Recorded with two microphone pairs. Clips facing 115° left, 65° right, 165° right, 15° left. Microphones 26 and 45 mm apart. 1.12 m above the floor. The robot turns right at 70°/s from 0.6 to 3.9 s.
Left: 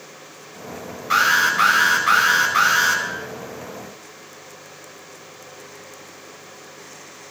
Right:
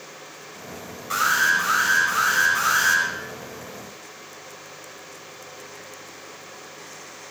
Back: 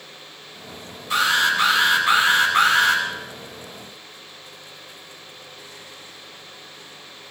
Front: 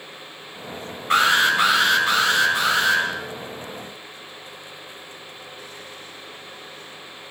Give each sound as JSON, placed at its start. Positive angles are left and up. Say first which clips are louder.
{"t": 1.1, "sound": "an alarm", "louder": "left 3 dB, front 2 dB", "azimuth_deg": 50, "distance_m": 5.5}